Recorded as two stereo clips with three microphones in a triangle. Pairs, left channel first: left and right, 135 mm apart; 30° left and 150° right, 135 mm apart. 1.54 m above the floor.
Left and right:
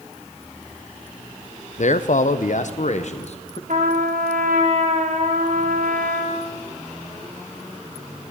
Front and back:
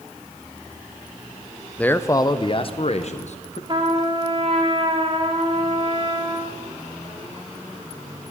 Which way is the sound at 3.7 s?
100° right.